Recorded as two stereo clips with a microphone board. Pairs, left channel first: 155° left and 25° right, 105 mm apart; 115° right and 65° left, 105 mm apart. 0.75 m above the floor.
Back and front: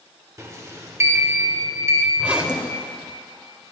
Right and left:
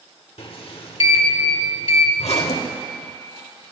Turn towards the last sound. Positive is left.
turn(degrees=-100)